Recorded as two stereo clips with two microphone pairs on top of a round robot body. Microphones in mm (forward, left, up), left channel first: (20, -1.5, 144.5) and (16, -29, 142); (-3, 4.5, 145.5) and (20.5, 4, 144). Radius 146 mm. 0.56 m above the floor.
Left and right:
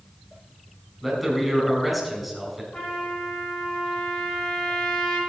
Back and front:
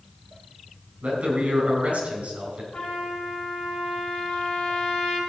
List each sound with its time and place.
1.0 s a man speaking: 15° right, 4.5 m
2.7 s a trumpet: 140° left, 5.5 m